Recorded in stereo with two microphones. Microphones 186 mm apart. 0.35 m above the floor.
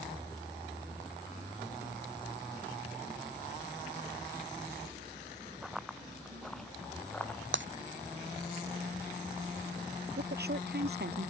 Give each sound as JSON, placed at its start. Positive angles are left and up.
{"t": 5.6, "sound": "running footsteps", "side_deg": -5}
{"t": 7.5, "sound": "breaking glass", "side_deg": -85}
{"t": 10.2, "sound": "a woman speaking", "side_deg": -60}